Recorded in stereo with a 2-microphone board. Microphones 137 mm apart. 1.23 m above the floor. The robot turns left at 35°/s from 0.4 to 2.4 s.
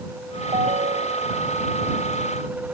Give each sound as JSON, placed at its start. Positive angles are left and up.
{"t": 0.5, "sound": "a ringtone", "azimuth_deg": -50}